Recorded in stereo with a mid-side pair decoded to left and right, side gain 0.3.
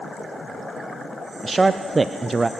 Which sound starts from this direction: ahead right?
A man speaking, at 1.4 s.